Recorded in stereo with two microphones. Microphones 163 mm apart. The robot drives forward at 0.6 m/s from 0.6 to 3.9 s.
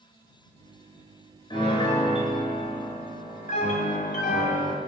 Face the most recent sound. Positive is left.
turn(degrees=60)  # may be behind; listen again after turning